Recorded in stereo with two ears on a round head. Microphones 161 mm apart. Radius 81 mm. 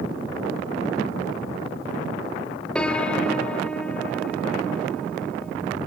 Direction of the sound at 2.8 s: 5° left (ahead or behind).